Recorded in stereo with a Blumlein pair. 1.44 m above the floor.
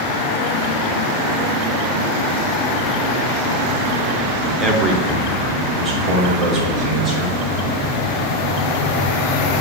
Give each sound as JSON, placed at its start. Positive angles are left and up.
{"t": 4.6, "sound": "a man speaking", "azimuth_deg": -20, "distance_m": 0.9}